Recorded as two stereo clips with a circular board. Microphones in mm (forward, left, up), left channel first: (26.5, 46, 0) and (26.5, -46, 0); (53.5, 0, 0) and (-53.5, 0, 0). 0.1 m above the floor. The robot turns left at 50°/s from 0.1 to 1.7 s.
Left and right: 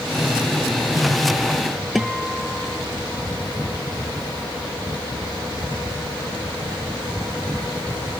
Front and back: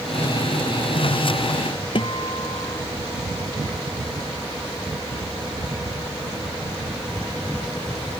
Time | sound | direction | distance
1.9 | a guitar | straight ahead | ?